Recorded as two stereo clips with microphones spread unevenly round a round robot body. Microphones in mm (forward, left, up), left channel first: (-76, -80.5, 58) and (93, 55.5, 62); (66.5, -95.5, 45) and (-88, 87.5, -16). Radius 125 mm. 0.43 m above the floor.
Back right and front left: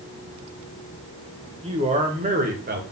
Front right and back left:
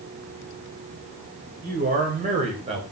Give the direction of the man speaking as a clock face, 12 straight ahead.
9 o'clock.